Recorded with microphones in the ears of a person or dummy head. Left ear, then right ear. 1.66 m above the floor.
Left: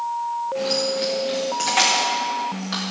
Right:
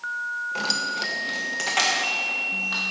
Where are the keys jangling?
45° right (ahead or behind), 0.9 m; by 2.8 s 5° right (ahead or behind), 2.0 m.